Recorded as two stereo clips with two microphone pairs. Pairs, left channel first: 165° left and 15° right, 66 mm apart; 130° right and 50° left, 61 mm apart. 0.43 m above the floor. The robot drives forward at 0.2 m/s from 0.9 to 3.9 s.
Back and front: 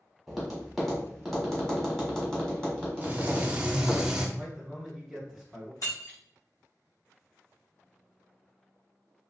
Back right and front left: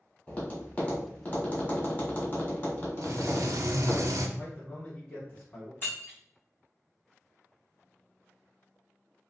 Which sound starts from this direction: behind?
Breaking glass, at 5.8 s.